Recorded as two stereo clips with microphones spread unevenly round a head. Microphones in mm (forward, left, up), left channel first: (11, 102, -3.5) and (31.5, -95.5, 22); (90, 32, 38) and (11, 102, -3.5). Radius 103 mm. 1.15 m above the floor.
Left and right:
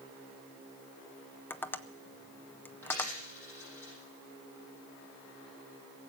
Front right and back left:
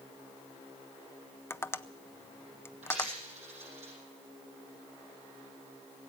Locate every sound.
1.5 s tapping: 45° left, 0.6 m
2.8 s a dropped coin: 175° left, 8 m